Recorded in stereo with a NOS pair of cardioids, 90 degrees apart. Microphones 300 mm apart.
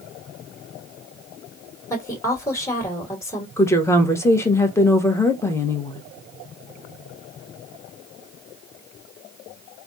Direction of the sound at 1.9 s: 10° left.